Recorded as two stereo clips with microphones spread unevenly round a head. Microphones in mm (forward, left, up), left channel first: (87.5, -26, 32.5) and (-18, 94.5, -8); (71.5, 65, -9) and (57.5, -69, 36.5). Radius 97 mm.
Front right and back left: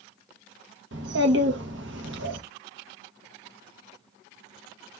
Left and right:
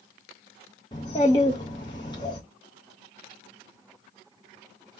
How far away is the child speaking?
About 1.2 m.